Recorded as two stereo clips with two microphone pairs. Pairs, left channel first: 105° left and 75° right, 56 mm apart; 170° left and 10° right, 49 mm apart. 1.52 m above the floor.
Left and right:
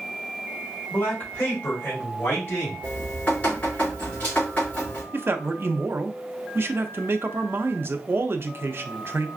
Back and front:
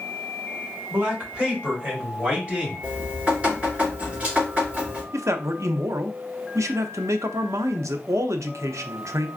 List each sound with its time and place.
0.9 s a man speaking: 45° left, 2 m; by 2.8 s 55° left, 3.5 m
2.8 s dripping: 50° left, 3 m
5.1 s a man speaking: 25° right, 0.5 m